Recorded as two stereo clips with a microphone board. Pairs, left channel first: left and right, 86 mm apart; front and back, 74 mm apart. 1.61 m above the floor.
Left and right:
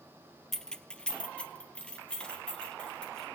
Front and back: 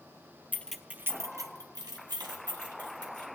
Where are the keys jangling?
10° left, 0.5 m; by 3.3 s 170° left, 2 m.